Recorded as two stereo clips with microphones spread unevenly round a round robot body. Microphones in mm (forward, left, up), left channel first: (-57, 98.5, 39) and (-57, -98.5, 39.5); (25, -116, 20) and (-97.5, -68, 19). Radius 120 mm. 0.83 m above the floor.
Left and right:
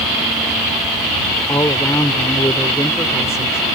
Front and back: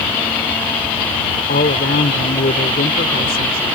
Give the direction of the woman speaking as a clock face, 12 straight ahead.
12 o'clock.